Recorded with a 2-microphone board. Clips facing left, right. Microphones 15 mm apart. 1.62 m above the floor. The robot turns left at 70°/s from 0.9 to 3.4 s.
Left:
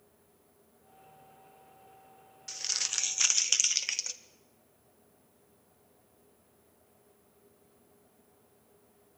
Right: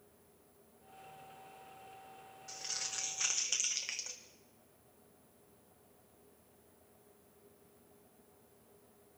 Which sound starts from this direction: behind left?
Crumpling, at 2.5 s.